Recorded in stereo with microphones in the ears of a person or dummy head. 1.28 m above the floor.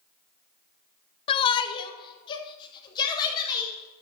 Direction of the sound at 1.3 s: 30° left (ahead or behind).